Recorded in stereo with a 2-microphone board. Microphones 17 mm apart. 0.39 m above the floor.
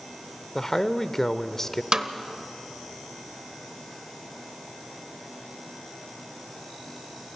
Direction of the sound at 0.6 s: 25° left (ahead or behind).